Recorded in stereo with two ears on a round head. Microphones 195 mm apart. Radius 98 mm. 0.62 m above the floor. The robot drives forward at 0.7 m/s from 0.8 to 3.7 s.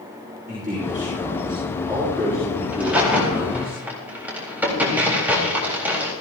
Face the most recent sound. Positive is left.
turn(degrees=-10)  # may be behind; listen again after turning